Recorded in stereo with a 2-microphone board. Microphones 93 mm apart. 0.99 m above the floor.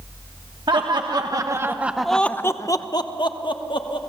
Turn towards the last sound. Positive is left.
turn(degrees=65)  # may be behind; listen again after turning